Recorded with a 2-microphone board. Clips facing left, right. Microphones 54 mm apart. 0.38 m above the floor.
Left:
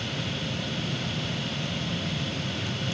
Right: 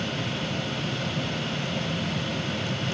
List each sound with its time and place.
Only background noise.